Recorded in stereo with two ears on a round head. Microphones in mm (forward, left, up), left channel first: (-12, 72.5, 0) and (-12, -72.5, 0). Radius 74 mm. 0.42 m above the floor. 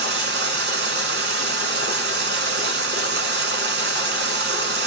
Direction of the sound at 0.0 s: 75° right (ahead or behind).